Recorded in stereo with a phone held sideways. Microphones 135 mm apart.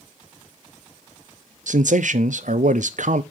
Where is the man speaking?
65° right (ahead or behind), 0.5 m.